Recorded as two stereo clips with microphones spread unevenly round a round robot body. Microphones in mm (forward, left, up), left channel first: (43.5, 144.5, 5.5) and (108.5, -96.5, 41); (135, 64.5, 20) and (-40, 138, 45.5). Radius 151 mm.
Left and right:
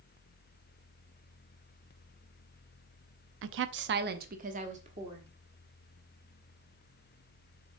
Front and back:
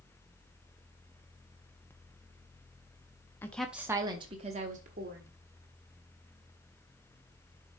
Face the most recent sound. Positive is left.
turn(degrees=-150)